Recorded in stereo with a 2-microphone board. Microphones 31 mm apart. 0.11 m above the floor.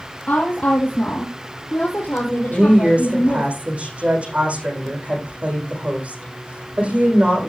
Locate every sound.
0.3 s a woman speaking: 60° left (ahead or behind), 2.5 m; by 3.5 s 70° left (ahead or behind), 4 m
2.5 s a woman speaking: 45° right (ahead or behind), 4.5 m